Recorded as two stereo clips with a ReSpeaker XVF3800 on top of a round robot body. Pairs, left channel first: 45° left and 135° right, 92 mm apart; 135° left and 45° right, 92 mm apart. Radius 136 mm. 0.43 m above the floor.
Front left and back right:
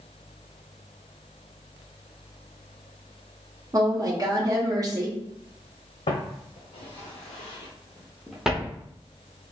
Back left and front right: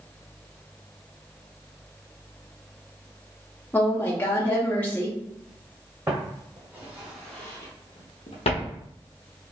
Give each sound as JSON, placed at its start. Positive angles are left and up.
{"t": 3.7, "sound": "a woman speaking", "azimuth_deg": -160, "distance_m": 1.1}
{"t": 6.1, "sound": "footsteps", "azimuth_deg": 20, "distance_m": 2.0}